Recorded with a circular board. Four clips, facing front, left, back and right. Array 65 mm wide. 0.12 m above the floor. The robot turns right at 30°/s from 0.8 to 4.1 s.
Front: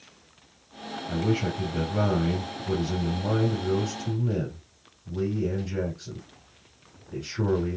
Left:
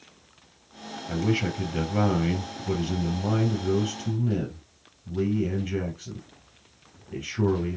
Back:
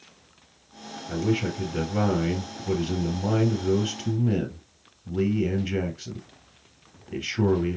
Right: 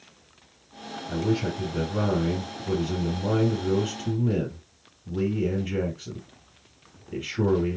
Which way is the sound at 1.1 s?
95° left.